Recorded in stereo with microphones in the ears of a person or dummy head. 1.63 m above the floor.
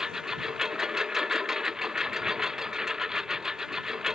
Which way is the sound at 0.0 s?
Centre (ahead or behind).